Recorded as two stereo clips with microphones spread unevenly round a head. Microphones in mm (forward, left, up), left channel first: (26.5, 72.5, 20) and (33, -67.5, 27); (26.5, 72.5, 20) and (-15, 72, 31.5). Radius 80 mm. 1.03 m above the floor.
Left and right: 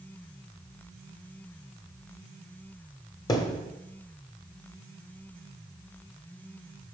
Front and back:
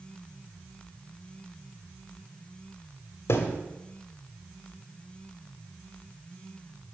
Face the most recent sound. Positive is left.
turn(degrees=30)